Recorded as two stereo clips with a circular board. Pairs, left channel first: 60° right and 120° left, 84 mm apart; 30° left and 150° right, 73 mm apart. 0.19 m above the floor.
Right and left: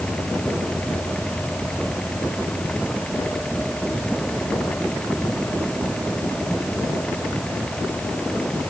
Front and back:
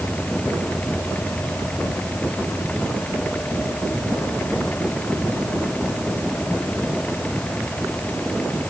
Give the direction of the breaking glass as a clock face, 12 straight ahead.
I don't hear breaking glass.